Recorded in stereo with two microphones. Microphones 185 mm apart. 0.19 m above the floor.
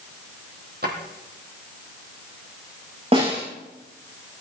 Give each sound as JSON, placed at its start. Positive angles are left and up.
{"t": 0.8, "sound": "a drawer", "side_deg": -60, "distance_m": 4.0}
{"t": 3.1, "sound": "a snare drum", "side_deg": -35, "distance_m": 9.5}